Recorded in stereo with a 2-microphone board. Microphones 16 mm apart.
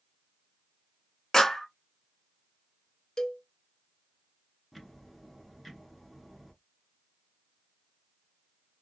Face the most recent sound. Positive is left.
turn(degrees=-5)  # may be behind; listen again after turning